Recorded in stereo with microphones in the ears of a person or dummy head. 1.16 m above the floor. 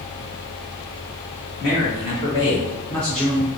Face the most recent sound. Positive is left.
turn(degrees=-5)  # may be behind; listen again after turning